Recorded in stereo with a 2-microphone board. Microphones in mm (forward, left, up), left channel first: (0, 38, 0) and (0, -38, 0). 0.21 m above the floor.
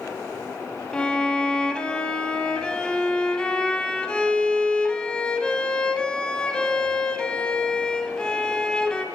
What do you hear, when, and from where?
0.9 s a violin: 10° left (ahead or behind), 0.6 m